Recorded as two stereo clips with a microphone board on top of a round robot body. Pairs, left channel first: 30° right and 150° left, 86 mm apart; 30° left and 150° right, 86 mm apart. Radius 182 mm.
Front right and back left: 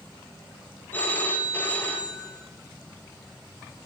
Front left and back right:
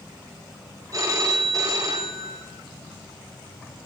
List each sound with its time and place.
0.9 s a phone ringing: 100° right, 2.5 m